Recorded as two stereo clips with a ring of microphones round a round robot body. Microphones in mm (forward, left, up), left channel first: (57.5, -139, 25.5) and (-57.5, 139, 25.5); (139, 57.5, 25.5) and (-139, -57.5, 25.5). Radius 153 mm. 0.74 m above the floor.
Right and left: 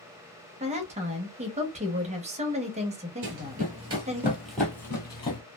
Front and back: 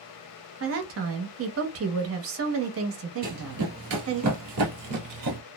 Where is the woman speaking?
175° left, 0.9 m.